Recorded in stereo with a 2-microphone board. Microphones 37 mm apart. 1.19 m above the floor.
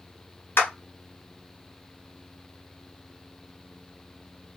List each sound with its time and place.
0.6 s a clap: 75° left (ahead or behind), 1.0 m